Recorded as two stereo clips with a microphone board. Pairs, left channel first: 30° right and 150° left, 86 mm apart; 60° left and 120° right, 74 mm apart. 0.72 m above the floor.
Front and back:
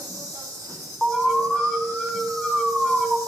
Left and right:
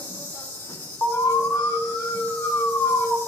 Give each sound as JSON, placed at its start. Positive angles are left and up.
{"t": 0.0, "sound": "an insect", "azimuth_deg": 115, "distance_m": 3.5}
{"t": 1.0, "sound": "an alarm", "azimuth_deg": 60, "distance_m": 1.5}